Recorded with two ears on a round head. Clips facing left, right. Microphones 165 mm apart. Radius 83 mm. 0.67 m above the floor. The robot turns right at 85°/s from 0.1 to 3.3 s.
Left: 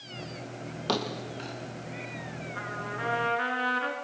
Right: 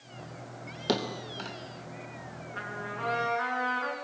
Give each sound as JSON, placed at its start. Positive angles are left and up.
{"t": 0.9, "sound": "a thud", "side_deg": -15, "distance_m": 3.5}
{"t": 2.5, "sound": "a trumpet", "azimuth_deg": -35, "distance_m": 4.5}